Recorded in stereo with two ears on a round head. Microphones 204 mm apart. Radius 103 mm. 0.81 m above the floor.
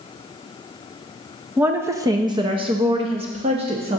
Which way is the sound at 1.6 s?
5° right (ahead or behind).